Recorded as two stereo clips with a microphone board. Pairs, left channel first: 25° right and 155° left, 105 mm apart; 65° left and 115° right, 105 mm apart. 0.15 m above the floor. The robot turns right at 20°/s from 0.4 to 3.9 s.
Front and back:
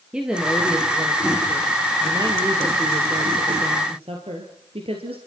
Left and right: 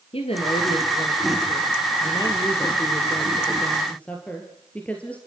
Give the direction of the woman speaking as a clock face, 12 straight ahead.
10 o'clock.